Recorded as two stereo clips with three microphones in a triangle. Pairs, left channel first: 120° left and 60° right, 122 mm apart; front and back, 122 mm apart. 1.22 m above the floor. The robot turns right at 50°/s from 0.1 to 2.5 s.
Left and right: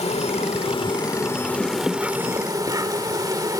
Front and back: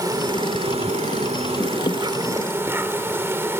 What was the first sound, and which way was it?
An insect, 125° left.